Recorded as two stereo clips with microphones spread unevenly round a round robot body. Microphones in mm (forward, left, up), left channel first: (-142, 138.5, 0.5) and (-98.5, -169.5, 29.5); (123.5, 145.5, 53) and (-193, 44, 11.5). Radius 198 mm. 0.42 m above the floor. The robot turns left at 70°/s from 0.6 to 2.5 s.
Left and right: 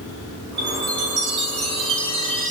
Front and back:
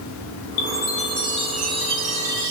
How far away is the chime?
About 3.5 m.